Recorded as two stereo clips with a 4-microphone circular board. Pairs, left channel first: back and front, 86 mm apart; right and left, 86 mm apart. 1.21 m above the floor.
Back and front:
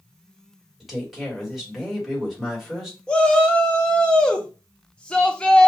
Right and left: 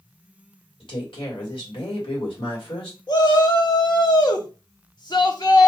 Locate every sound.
0.8 s a woman speaking: 85° right, 1.5 m
3.1 s a shout: 105° right, 0.8 m